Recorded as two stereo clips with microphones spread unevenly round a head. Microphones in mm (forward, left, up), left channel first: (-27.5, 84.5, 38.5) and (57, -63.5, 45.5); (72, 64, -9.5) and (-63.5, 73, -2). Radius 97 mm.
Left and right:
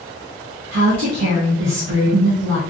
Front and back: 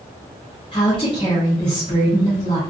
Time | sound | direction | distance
0.7 | a woman speaking | 70° right | 0.6 m